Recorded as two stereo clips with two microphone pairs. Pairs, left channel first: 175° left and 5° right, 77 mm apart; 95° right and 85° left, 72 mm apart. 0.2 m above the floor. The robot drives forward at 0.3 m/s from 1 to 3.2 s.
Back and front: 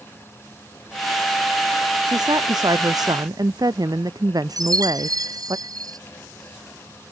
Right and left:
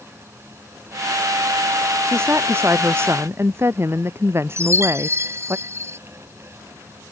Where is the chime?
30° left.